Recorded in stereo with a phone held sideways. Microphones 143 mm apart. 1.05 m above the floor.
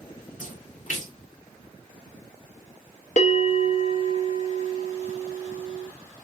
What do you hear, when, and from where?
0.4 s a splash: 60° left (ahead or behind), 2 m
3.2 s a bell: 60° left (ahead or behind), 1.1 m